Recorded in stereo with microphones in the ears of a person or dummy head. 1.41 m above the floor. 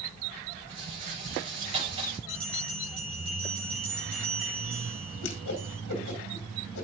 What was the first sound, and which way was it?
A rattle, 35° right (ahead or behind).